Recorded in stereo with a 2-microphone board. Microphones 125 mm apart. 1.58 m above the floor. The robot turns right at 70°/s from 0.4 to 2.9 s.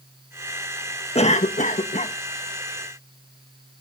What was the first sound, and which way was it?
A cough, 55° left.